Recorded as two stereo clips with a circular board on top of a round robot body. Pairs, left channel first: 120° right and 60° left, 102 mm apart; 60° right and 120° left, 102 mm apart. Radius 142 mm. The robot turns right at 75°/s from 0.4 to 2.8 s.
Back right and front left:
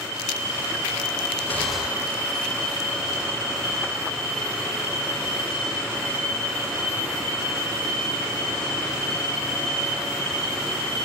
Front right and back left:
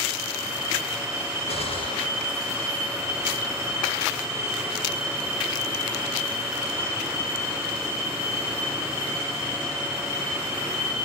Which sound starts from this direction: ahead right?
A gunshot, at 1.5 s.